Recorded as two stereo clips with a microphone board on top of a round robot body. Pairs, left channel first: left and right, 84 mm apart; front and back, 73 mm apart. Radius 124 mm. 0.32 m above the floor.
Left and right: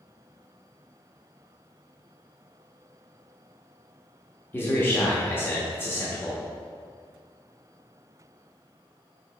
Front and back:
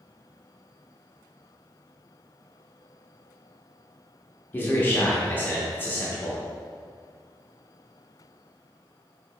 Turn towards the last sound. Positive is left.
turn(degrees=45)